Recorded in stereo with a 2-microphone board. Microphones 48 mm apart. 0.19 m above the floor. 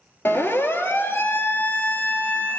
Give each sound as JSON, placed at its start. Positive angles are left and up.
{"t": 0.2, "sound": "a siren", "side_deg": 45, "distance_m": 3.5}